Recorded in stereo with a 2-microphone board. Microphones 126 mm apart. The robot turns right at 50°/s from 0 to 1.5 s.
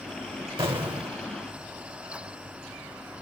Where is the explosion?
75° right, 0.9 m; by 1.2 s 45° right, 0.9 m.